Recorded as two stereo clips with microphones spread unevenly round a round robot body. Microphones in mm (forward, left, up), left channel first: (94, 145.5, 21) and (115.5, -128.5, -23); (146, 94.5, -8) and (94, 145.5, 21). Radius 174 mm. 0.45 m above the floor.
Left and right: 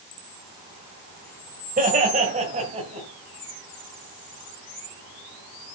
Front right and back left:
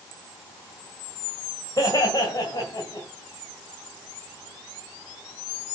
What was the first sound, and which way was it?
Laughter, 30° right.